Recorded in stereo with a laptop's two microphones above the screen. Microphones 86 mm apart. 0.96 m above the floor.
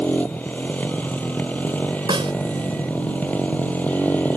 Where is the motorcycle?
20° left (ahead or behind).